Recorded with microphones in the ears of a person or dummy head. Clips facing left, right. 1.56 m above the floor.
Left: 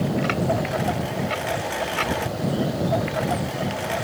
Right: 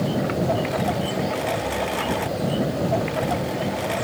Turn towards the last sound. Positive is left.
turn(degrees=0)  # may be behind; listen again after turning